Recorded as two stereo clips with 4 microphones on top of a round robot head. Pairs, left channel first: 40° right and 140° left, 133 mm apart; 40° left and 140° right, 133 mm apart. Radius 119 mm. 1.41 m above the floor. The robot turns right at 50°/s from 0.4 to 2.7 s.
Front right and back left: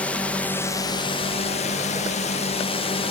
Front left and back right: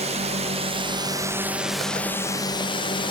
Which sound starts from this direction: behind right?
A drone, at 0.0 s.